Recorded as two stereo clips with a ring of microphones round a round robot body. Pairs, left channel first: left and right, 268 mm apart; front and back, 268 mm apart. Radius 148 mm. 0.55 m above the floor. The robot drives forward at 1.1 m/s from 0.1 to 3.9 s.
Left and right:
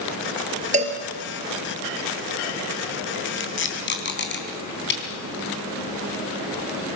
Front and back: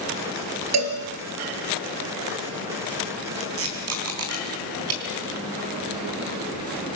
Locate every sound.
0.7 s a cowbell: 155° right, 3.5 m
3.4 s tape being pulled: 130° left, 3.5 m; by 5.0 s 140° left, 4 m